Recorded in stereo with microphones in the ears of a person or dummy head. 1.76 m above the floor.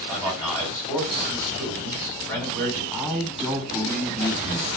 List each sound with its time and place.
0.1 s a man speaking: 25° left (ahead or behind), 2 m
2.9 s a man speaking: centre (ahead or behind), 0.8 m